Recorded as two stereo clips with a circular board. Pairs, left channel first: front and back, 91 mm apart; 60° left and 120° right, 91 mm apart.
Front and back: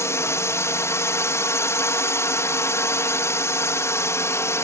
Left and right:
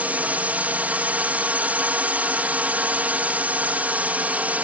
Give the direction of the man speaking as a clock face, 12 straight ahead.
I don't hear a man speaking.